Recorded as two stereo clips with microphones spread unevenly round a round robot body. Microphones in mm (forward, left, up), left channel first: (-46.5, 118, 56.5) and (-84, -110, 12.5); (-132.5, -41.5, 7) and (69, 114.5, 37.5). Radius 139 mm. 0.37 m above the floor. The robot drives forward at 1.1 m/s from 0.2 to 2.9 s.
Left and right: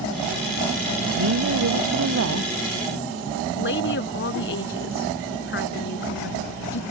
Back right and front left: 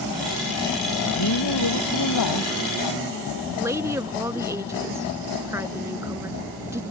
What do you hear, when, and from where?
1.1 s a woman speaking: 120° right; by 2.8 s 130° right
3.5 s a woman speaking: 115° left